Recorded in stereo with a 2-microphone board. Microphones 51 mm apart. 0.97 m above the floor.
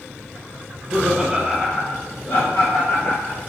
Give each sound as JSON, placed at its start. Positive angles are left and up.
{"t": 0.7, "sound": "laughter", "side_deg": -30, "distance_m": 0.9}